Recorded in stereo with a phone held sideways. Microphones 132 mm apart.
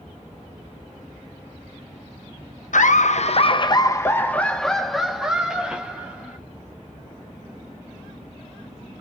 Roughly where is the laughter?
Left.